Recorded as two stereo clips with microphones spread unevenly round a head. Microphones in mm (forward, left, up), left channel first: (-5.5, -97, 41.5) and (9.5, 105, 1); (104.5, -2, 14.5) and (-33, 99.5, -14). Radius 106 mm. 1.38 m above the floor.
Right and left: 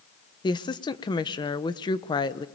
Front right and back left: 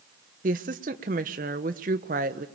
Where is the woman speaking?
165° right, 1.1 m.